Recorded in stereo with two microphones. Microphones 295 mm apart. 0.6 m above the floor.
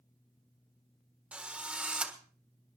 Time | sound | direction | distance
1.3 | a drill | 5° right (ahead or behind) | 1.5 m